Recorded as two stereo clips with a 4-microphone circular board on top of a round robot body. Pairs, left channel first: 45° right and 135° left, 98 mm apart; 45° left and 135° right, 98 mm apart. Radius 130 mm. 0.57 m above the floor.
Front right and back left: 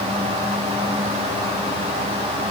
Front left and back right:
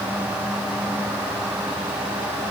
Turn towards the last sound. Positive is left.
No sound to turn to.